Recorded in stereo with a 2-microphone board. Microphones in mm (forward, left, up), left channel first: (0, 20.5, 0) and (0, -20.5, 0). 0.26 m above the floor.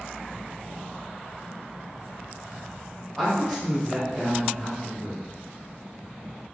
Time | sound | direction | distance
3.1 | a woman speaking | centre (ahead or behind) | 1.1 m